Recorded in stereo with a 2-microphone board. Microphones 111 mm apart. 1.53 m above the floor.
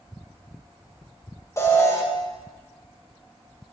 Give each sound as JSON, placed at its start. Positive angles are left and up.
{"t": 1.6, "sound": "an alarm", "side_deg": 25, "distance_m": 1.0}